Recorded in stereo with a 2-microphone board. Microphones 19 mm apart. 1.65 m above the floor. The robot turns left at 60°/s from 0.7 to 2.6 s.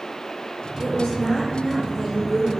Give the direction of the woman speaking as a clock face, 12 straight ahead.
9 o'clock.